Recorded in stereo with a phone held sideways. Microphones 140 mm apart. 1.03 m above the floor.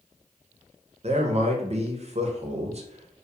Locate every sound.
1.0 s a man speaking: 50° right (ahead or behind), 0.5 m